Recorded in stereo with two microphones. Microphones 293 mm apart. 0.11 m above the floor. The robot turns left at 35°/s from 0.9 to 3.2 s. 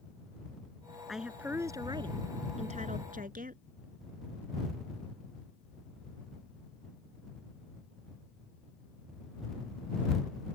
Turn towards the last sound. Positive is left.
turn(degrees=-25)  # may be behind; listen again after turning